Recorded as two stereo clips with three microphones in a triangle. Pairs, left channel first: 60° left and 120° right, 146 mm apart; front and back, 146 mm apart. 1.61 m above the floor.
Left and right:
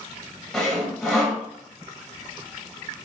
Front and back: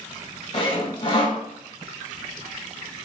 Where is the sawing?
30° right, 1.0 m.